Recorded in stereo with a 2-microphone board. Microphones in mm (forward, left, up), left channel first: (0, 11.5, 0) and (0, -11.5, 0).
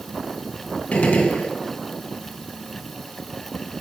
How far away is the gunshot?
About 4 m.